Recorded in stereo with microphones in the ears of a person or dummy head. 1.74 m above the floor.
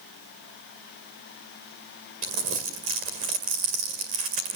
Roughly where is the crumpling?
Right.